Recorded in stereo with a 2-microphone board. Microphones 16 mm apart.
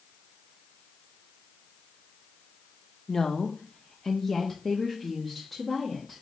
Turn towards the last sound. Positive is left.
turn(degrees=-5)  # may be behind; listen again after turning